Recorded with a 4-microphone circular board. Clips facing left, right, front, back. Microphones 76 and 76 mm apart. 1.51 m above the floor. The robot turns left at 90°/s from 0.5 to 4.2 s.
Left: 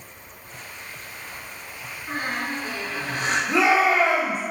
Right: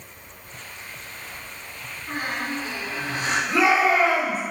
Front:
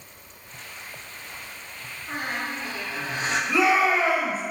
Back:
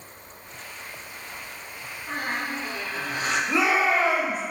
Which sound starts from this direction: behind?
A squeak, at 2.1 s.